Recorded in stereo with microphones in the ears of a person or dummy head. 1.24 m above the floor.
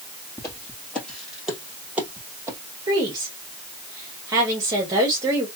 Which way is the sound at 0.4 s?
15° left (ahead or behind).